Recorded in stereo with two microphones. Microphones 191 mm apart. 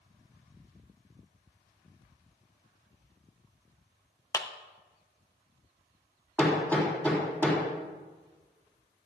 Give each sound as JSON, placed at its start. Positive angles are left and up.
{"t": 4.3, "sound": "a clap", "side_deg": 15, "distance_m": 0.7}
{"t": 6.4, "sound": "hammering", "side_deg": 10, "distance_m": 3.5}